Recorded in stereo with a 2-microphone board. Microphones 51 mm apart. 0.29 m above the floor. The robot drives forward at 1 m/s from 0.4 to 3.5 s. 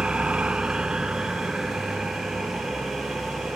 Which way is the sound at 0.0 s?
20° right (ahead or behind).